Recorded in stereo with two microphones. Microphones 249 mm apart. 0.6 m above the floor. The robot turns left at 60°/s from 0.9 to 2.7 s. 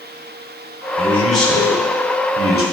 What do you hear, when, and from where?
1.0 s a man speaking: 170° left, 2 m; by 2.6 s 70° left, 2 m